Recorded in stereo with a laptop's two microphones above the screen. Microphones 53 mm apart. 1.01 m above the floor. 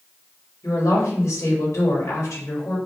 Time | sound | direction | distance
0.6 | a woman speaking | 80° left | 1.6 m